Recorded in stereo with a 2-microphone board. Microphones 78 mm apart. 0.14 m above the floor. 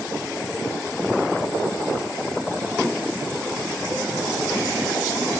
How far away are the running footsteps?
I don't hear running footsteps.